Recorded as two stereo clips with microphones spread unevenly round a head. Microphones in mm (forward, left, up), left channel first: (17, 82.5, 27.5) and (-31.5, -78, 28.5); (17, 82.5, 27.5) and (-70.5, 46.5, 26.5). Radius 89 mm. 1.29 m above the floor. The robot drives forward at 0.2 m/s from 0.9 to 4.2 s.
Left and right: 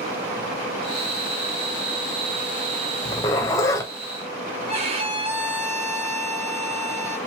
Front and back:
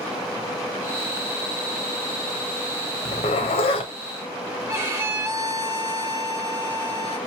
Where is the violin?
120° right, 0.8 m.